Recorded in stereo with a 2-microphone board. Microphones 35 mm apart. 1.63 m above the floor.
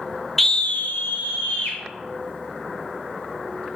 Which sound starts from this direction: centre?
A scream, at 0.4 s.